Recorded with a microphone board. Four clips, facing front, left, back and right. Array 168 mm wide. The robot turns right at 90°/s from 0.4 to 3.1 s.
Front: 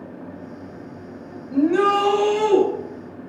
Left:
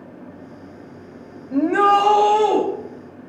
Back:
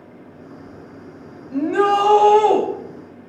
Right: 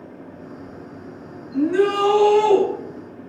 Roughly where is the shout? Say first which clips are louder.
Left 3 dB, even; left.